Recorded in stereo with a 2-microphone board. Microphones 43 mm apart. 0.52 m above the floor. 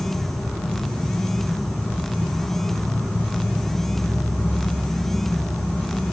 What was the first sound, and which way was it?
An insect, 65° left (ahead or behind).